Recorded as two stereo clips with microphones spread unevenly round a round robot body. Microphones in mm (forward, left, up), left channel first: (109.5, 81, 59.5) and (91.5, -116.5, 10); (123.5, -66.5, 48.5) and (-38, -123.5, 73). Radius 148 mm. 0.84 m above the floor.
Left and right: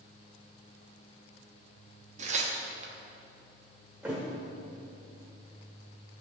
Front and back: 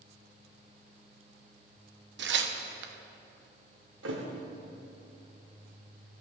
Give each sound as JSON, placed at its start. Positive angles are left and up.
{"t": 2.2, "sound": "tearing paper", "azimuth_deg": -150, "distance_m": 0.9}
{"t": 4.0, "sound": "a thud", "azimuth_deg": 175, "distance_m": 1.0}